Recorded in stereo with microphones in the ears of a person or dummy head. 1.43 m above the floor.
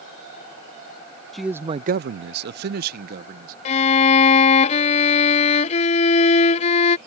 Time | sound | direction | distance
1.3 | a man speaking | centre (ahead or behind) | ?
3.6 | a violin | 40° left (ahead or behind) | ?